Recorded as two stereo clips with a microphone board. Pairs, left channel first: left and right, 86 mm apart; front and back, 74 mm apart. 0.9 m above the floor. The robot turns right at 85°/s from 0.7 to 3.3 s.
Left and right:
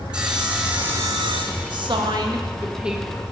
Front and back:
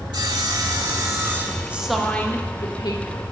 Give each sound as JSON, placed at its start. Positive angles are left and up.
{"t": 0.1, "sound": "sawing", "azimuth_deg": -170, "distance_m": 1.5}
{"t": 1.7, "sound": "a woman speaking", "azimuth_deg": -110, "distance_m": 1.3}